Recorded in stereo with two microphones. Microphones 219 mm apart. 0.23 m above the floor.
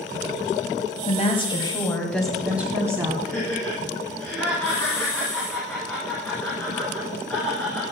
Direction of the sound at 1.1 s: 30° left (ahead or behind).